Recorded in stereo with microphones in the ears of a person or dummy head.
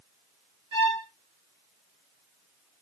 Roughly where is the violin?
Right.